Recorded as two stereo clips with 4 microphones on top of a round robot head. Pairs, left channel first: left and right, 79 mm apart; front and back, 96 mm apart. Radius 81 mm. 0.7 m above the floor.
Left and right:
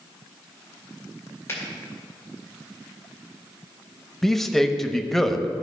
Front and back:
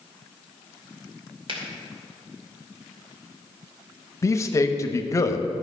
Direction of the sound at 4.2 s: 5° left.